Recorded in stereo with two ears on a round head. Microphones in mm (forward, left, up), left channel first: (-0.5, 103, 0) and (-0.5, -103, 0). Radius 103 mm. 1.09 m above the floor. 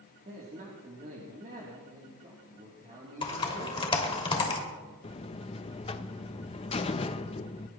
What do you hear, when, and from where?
0.2 s a man speaking: 35° right (ahead or behind), 3 m
3.2 s typing on a keyboard: 25° left (ahead or behind), 2.5 m
5.0 s a buzzer: 25° left (ahead or behind), 0.6 m